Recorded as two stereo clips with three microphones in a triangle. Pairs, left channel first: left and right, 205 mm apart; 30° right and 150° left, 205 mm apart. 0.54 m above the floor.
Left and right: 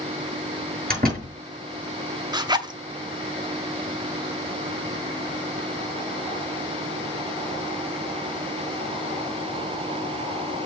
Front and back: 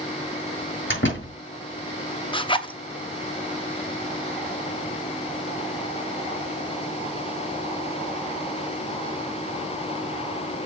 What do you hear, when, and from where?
0.9 s a door slam: 45° right, 5.5 m
2.3 s a zipper: 50° right, 0.7 m